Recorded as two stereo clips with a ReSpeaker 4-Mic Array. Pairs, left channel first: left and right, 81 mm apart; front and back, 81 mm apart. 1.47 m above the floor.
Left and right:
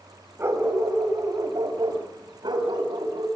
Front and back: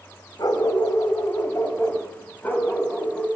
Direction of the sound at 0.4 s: 35° right.